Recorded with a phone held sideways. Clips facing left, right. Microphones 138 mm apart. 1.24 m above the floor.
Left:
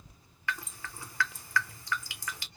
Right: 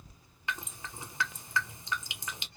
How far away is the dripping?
About 0.6 m.